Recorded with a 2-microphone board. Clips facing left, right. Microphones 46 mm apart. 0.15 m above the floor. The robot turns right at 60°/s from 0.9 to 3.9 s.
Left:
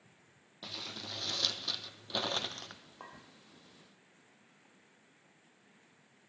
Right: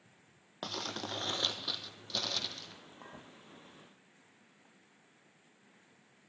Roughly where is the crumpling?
Ahead right.